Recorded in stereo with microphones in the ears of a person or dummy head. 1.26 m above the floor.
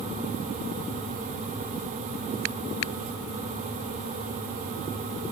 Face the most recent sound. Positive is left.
No sound to turn to.